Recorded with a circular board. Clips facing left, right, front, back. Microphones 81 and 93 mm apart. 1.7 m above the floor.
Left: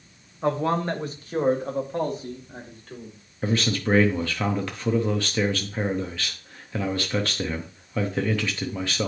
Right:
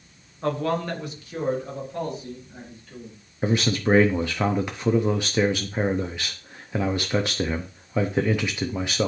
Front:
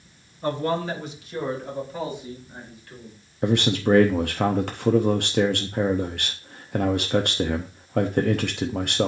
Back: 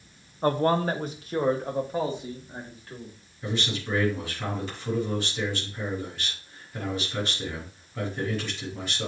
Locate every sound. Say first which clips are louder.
0.4 s a man speaking: left 2 dB, back 2 dB; 160° left, 0.9 m; by 3.1 s 120° left, 3 m
3.4 s a man speaking: right 2 dB, front 10 dB; 20° right, 0.7 m